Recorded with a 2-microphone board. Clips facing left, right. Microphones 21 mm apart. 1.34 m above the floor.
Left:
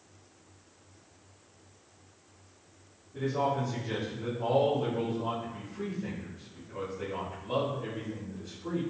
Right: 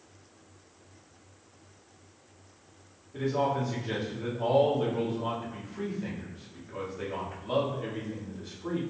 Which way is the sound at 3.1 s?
50° right (ahead or behind).